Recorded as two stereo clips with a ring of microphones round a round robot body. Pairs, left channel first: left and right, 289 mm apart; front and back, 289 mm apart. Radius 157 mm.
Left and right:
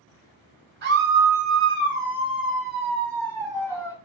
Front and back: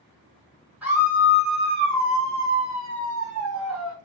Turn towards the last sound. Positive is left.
turn(degrees=170)